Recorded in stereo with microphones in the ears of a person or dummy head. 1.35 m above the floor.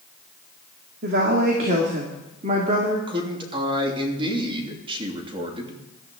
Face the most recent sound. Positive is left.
turn(degrees=-25)  # may be behind; listen again after turning